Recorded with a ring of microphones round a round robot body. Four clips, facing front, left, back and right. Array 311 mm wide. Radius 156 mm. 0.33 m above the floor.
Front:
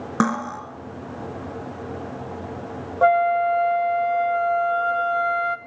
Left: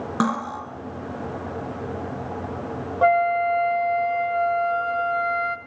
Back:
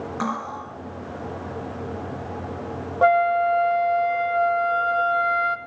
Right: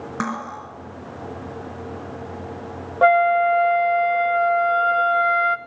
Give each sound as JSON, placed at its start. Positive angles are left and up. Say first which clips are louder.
{"t": 0.2, "sound": "cutlery clinking", "louder": "left 4 dB, front 6 dB", "azimuth_deg": 20, "distance_m": 3.0}
{"t": 3.0, "sound": "a flute", "louder": "right 3 dB, even", "azimuth_deg": -100, "distance_m": 0.7}